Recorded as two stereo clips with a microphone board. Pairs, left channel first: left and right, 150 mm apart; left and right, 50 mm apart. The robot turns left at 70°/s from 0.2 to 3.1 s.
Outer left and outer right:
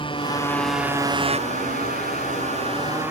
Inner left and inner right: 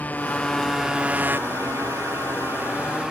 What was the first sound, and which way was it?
A motorcycle, 35° left.